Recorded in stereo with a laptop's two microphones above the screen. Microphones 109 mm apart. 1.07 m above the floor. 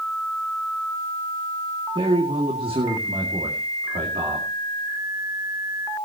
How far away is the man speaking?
About 2 m.